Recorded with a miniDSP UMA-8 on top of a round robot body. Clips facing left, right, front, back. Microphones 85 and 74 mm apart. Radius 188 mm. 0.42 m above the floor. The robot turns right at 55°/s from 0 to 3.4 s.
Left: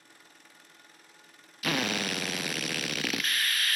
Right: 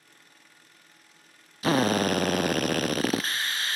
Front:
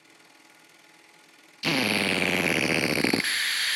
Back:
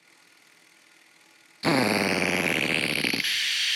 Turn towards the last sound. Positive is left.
turn(degrees=-40)